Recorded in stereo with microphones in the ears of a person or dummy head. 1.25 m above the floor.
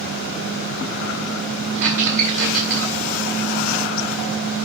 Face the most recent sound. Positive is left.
turn(degrees=-75)  # may be behind; listen again after turning